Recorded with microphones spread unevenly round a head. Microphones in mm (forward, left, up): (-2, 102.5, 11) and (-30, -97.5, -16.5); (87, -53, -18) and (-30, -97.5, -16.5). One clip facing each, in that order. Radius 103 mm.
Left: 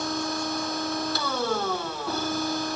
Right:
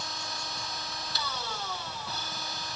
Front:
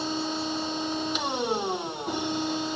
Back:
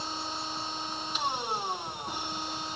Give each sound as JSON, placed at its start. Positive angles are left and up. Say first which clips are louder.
{"t": 0.0, "sound": "a machine running", "louder": "left 14 dB, front 8 dB", "azimuth_deg": 35}